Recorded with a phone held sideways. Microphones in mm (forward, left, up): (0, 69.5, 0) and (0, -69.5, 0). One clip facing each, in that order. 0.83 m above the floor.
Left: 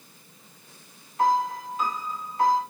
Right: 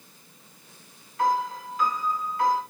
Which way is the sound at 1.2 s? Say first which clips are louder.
Left 2 dB; 25° left (ahead or behind).